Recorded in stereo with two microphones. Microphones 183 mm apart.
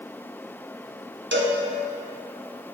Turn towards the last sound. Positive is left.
turn(degrees=-80)